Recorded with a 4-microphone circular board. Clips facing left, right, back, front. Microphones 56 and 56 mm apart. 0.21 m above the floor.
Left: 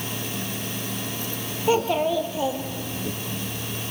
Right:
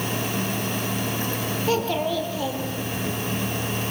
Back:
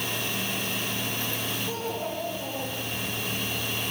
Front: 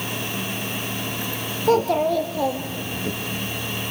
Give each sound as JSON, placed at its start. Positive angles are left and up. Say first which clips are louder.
{"t": 1.6, "sound": "a child speaking", "louder": "left 3 dB, front 13 dB", "azimuth_deg": 15, "distance_m": 3.5}